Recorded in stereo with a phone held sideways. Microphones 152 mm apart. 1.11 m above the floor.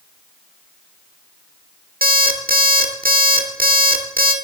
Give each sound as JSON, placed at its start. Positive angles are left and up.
{"t": 2.0, "sound": "an alarm clock", "side_deg": -70, "distance_m": 1.5}